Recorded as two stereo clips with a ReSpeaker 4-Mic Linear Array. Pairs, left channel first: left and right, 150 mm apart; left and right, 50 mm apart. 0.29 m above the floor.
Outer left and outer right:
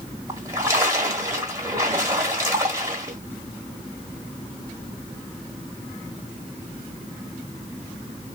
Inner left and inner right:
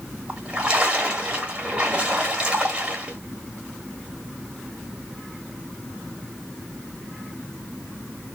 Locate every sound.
0.3 s a splash: 20° right (ahead or behind), 1.5 m